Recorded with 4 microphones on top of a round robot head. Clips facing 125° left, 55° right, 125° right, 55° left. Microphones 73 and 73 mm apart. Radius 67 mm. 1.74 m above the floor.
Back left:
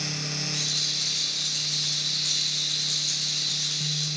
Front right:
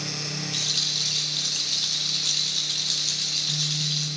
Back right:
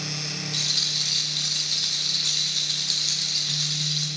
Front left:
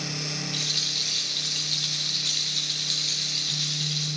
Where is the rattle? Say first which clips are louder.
Front right 1 dB, back right 1 dB; 65° right, 0.8 m.